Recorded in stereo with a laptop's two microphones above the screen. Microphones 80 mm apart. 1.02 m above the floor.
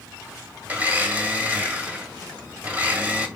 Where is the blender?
20° right (ahead or behind), 1.7 m.